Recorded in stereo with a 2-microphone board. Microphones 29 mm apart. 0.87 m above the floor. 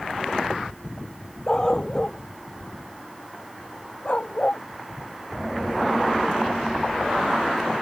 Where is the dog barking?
30° left (ahead or behind); by 4.6 s 45° left (ahead or behind).